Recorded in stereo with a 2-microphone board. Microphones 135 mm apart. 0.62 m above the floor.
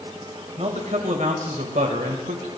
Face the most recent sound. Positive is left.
turn(degrees=-75)  # may be behind; listen again after turning